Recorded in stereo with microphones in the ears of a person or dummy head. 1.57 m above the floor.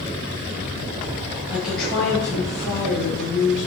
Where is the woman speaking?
10° right (ahead or behind), 0.6 m; by 3.7 s 35° left (ahead or behind), 1.4 m.